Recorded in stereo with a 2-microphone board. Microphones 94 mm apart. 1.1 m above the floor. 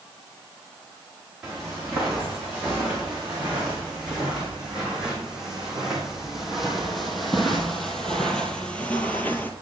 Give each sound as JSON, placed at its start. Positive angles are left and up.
{"t": 1.4, "sound": "footsteps", "side_deg": -15, "distance_m": 5.0}